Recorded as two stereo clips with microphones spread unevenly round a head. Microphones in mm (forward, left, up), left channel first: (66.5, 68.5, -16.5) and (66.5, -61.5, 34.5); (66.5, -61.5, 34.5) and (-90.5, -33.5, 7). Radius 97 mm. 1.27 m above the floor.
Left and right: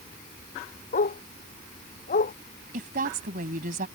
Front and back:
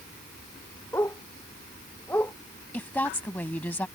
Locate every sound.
0.9 s a dog barking: 70° left
2.7 s a woman speaking: 90° right